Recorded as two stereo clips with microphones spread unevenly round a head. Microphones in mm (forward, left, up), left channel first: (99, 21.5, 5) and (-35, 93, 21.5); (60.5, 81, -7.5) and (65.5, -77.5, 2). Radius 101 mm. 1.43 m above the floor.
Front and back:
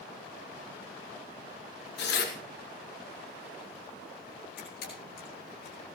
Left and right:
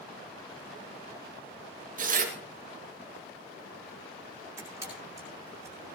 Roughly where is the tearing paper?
Ahead right.